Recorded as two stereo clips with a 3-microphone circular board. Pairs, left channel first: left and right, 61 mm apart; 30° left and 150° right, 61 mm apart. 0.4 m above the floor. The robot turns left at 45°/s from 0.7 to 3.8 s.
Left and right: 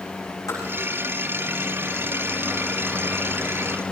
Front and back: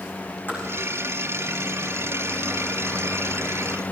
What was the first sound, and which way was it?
Tapping, 85° left.